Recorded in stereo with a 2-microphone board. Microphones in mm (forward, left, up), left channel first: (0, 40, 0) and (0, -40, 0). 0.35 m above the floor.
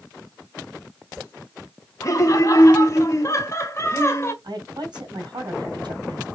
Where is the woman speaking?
65° right (ahead or behind), 3 m.